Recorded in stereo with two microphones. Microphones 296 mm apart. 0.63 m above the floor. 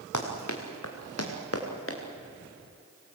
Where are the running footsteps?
75° left (ahead or behind), 3.5 m; by 2.0 s 45° left (ahead or behind), 4.5 m.